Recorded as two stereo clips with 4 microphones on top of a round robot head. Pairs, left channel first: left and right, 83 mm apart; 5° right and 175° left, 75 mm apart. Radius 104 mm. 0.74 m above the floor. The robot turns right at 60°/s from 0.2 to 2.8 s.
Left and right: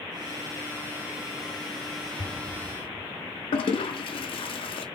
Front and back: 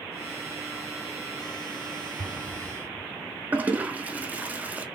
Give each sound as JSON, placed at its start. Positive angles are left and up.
{"t": 2.2, "sound": "an explosion", "azimuth_deg": -90, "distance_m": 2.5}
{"t": 3.5, "sound": "a toilet flushing", "azimuth_deg": 105, "distance_m": 0.5}